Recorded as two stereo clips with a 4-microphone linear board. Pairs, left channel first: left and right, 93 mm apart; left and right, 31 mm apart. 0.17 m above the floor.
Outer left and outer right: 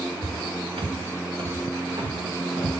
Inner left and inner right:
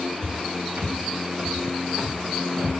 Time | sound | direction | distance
0.2 | footsteps | 75° right (ahead or behind) | 6.5 m